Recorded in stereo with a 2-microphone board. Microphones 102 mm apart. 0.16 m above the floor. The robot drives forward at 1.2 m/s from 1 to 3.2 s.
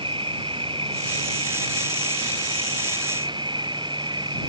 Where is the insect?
60° right (ahead or behind); by 4.5 s 50° right (ahead or behind).